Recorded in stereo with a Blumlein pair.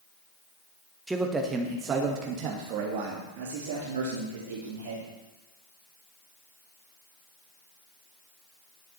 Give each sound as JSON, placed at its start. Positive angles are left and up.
{"t": 1.1, "sound": "a man speaking", "azimuth_deg": -5, "distance_m": 1.2}